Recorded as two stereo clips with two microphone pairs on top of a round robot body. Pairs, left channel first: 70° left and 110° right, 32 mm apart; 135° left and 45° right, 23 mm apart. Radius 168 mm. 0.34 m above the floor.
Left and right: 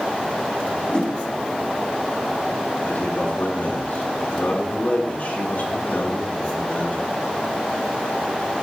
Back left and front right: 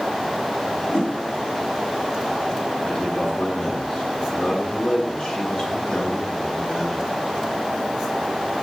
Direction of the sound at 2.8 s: 90° left.